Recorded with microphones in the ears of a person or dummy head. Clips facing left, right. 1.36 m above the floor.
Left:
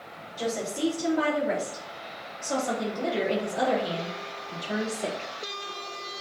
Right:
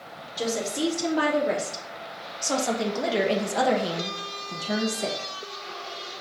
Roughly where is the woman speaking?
Right.